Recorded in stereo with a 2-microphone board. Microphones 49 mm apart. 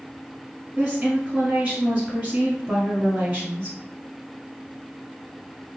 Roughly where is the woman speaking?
Centre.